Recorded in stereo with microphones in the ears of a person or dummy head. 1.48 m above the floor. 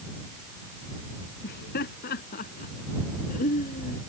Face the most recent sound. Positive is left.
turn(degrees=45)  # may be behind; listen again after turning